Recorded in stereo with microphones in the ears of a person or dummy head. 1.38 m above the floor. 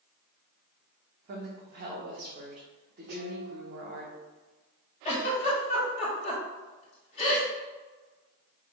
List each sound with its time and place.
1.3 s a woman speaking: 50° right (ahead or behind), 0.9 m
3.1 s dishes clattering: 55° right (ahead or behind), 1.4 m
5.0 s a giggle: 30° left (ahead or behind), 1.2 m